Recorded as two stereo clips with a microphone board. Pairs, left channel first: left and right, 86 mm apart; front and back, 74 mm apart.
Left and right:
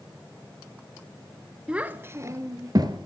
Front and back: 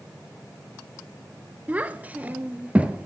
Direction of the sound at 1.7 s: 150° right.